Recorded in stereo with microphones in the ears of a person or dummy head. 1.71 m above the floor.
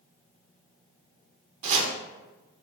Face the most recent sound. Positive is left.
turn(degrees=-40)  # may be behind; listen again after turning